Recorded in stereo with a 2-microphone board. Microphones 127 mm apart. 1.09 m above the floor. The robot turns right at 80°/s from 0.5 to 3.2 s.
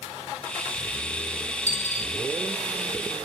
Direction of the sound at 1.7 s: 65° left (ahead or behind).